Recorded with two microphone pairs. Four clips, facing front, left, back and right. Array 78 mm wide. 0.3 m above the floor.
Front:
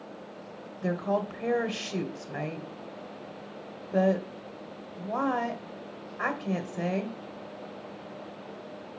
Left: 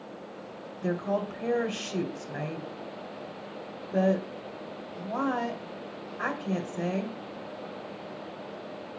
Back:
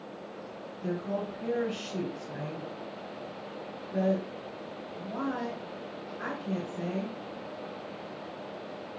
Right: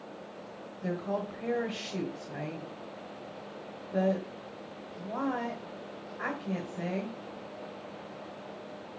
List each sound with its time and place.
0.8 s a woman speaking: 20° left, 1.4 m